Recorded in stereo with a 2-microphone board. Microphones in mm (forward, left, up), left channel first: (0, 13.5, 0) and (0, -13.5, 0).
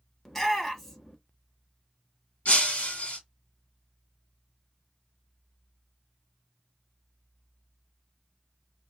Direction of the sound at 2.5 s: 70° left (ahead or behind).